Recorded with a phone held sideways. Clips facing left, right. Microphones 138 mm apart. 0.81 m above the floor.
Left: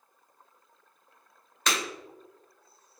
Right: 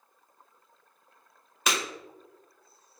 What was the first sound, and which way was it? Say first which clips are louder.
Breaking glass: right 1 dB; 10° right (ahead or behind).